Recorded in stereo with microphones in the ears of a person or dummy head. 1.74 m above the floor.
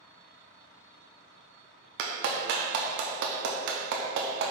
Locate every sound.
2.0 s a clap: 60° right (ahead or behind), 0.6 m